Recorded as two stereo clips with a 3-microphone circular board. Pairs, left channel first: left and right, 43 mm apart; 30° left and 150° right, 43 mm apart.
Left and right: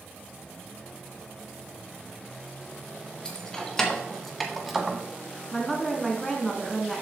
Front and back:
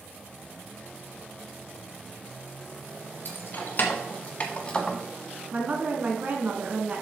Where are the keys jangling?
20° left, 1.5 m; by 5.0 s 30° right, 0.9 m.